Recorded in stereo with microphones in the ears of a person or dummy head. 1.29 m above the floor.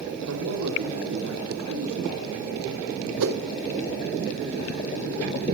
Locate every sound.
0.3 s a man speaking: 80° right, 2.5 m
3.2 s a whoosh: 70° right (ahead or behind), 1.2 m